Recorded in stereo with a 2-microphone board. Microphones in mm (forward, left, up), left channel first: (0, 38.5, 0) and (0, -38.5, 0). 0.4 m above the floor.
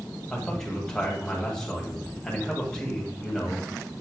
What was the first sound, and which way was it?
A man speaking, 10° left (ahead or behind).